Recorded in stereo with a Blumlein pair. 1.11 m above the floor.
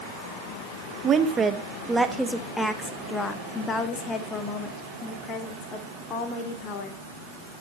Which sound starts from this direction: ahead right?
A woman speaking, at 1.0 s.